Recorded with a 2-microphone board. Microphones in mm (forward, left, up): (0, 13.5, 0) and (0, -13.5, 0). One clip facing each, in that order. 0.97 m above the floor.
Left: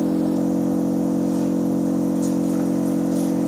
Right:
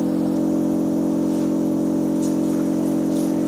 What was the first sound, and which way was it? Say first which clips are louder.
An engine running: even; 60° right (ahead or behind).